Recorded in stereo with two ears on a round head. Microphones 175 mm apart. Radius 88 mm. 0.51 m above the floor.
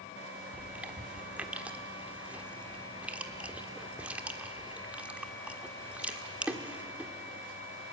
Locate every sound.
0.5 s chewing: 10° right (ahead or behind), 1.4 m